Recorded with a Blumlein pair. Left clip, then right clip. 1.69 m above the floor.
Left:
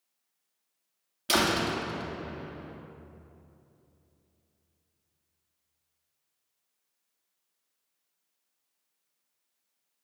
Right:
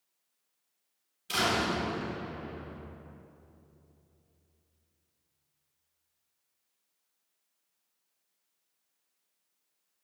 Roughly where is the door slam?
Ahead left.